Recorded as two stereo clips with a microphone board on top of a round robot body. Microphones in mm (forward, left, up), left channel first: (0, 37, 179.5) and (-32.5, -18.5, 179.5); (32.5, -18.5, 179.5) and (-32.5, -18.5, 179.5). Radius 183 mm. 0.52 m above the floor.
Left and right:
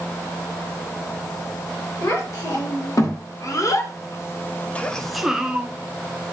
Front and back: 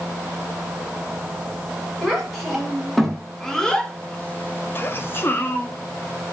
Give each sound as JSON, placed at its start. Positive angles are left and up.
{"t": 2.0, "sound": "a child speaking", "azimuth_deg": 90, "distance_m": 1.6}